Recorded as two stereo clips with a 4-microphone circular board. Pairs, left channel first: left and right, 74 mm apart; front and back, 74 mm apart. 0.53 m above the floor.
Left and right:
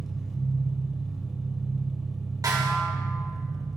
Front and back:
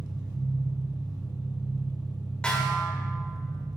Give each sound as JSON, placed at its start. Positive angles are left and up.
{"t": 0.0, "sound": "an engine running", "azimuth_deg": -175, "distance_m": 1.3}
{"t": 2.4, "sound": "a snare drum", "azimuth_deg": -70, "distance_m": 1.6}